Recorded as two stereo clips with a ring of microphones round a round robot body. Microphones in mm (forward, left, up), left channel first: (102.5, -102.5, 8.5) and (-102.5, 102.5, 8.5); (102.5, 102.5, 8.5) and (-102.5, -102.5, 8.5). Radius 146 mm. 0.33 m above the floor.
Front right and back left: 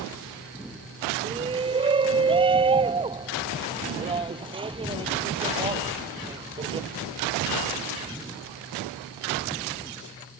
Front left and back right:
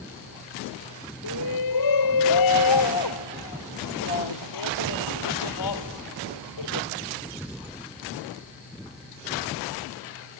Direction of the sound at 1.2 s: 60° left.